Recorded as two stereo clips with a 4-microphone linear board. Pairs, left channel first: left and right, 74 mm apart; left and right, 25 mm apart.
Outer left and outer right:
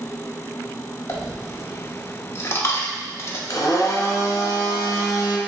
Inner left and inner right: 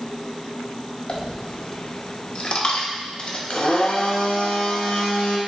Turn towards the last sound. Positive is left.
turn(degrees=50)  # may be behind; listen again after turning